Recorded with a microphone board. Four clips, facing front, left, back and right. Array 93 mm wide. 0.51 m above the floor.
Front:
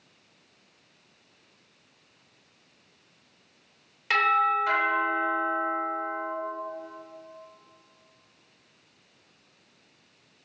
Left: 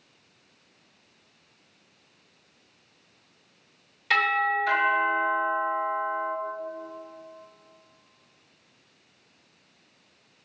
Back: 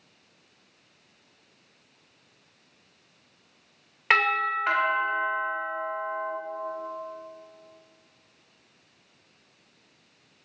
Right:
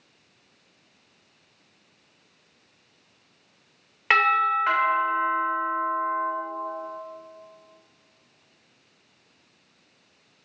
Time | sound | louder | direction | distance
4.1 | a doorbell | right 4 dB, front 1 dB | 130° right | 2.5 m